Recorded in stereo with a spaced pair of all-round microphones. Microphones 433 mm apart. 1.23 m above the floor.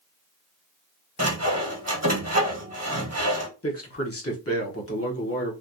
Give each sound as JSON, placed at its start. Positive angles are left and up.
{"t": 1.2, "sound": "sawing", "side_deg": -35, "distance_m": 1.2}
{"t": 3.6, "sound": "a man speaking", "side_deg": 30, "distance_m": 1.1}